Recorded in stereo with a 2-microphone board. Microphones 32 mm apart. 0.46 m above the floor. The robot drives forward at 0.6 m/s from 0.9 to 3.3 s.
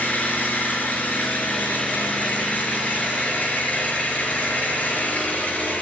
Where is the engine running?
60° left (ahead or behind), 7 m; by 5.8 s 50° left (ahead or behind), 7.5 m.